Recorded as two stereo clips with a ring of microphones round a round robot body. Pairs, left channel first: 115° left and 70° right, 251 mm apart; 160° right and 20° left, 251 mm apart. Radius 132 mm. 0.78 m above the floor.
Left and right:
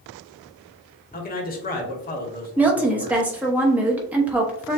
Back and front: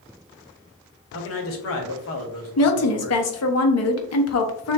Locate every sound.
1.1 s a man speaking: 170° left, 1.3 m
2.6 s a woman speaking: 150° right, 1.0 m